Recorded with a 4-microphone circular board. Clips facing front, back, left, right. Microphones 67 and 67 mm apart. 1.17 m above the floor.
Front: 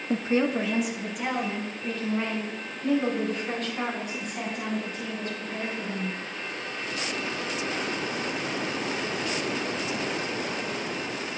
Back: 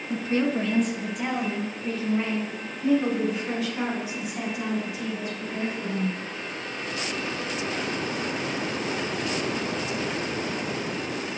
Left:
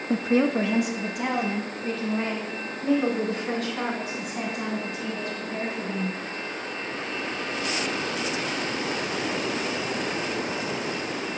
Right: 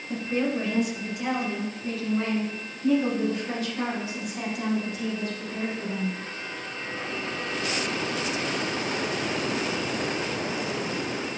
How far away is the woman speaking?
About 0.5 m.